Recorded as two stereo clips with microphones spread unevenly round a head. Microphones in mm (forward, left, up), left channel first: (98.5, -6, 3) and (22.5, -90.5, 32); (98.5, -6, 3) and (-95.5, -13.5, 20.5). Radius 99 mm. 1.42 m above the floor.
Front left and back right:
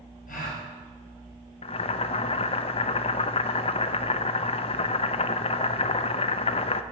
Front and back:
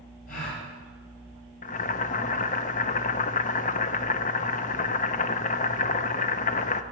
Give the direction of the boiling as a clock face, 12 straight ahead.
11 o'clock.